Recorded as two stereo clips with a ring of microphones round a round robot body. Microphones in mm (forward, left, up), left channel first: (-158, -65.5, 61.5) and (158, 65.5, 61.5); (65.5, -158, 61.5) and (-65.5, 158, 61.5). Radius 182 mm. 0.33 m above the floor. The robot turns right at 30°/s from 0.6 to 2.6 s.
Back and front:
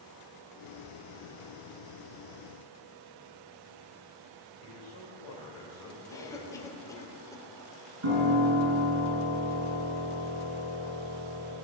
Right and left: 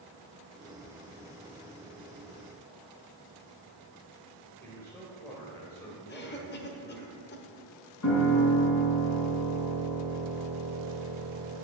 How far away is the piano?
About 3.5 m.